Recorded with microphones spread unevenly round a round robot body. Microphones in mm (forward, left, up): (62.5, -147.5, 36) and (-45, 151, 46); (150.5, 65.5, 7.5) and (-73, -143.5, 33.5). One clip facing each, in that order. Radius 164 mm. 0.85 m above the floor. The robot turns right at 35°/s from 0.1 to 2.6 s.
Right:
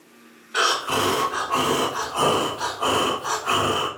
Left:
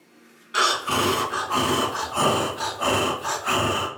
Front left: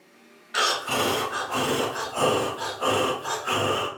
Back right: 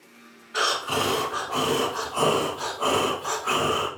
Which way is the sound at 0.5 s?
65° left.